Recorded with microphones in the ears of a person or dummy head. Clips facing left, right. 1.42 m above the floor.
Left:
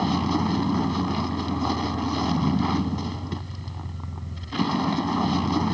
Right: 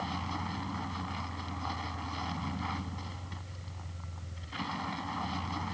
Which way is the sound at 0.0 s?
70° left (ahead or behind).